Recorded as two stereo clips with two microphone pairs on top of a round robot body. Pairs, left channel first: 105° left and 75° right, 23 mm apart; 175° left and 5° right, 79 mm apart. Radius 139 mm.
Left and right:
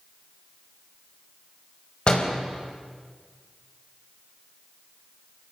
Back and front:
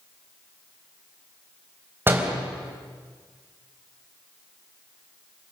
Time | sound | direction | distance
2.1 | a door slam | 60° left | 3.5 m